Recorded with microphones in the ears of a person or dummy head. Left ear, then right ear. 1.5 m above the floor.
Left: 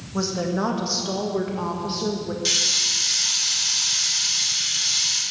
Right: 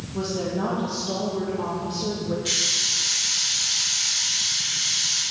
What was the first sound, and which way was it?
A woman speaking, 50° left (ahead or behind).